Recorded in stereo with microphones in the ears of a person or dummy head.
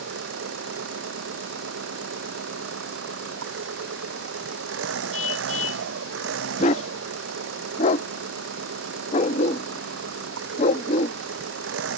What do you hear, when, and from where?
0.0 s an engine running: 80° right
5.1 s a car horn: 80° left
6.6 s a dog barking: 25° left (ahead or behind)